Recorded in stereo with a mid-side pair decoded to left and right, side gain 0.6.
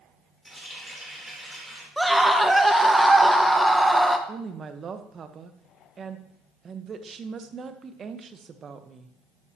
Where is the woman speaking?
35° right, 1.1 m.